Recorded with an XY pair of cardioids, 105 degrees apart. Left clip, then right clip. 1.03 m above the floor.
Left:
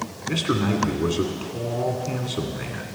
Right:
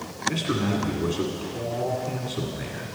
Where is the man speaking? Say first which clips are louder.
Left 2 dB; 15° left, 2 m.